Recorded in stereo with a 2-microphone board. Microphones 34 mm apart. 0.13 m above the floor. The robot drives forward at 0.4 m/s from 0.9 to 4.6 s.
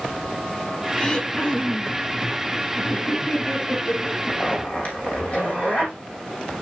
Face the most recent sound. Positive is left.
turn(degrees=45)  # may be behind; listen again after turning